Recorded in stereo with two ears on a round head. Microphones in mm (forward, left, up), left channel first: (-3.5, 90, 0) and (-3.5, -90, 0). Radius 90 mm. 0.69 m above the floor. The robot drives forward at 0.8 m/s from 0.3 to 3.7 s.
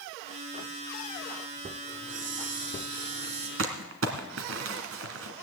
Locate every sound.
1.9 s a hiss: 65° right (ahead or behind), 2 m; by 3.5 s 50° right (ahead or behind), 2.5 m
3.6 s crumpling: 70° right (ahead or behind), 1.9 m